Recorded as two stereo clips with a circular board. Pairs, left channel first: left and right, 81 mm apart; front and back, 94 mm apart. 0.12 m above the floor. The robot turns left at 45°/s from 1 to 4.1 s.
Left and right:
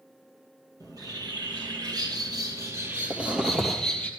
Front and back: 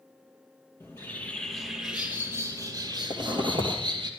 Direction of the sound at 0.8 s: 60° right.